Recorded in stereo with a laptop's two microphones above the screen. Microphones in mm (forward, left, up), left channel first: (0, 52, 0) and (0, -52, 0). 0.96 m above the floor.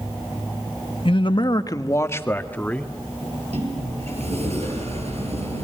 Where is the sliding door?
85° right, 5.5 m.